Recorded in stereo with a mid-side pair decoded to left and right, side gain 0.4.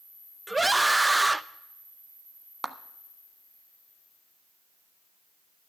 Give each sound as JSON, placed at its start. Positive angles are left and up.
{"t": 0.5, "sound": "a scream", "azimuth_deg": -15, "distance_m": 0.7}
{"t": 2.6, "sound": "a clap", "azimuth_deg": -25, "distance_m": 1.3}